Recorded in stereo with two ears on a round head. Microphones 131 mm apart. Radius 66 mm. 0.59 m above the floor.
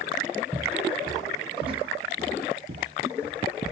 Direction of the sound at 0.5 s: 10° right (ahead or behind).